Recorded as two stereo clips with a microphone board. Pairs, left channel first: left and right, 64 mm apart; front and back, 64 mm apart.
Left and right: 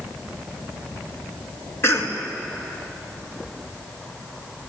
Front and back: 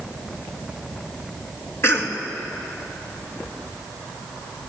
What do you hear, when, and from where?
1.8 s a cough: 40° left, 3 m